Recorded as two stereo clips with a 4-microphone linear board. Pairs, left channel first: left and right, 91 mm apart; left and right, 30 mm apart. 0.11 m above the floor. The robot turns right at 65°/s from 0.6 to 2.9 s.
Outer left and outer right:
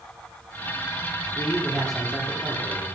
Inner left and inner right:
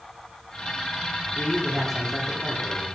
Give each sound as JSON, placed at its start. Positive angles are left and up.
{"t": 1.4, "sound": "a man speaking", "azimuth_deg": 145, "distance_m": 3.0}